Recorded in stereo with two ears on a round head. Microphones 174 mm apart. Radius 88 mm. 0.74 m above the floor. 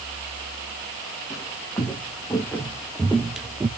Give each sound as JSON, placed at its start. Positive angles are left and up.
{"t": 1.3, "sound": "footsteps", "side_deg": 20, "distance_m": 2.0}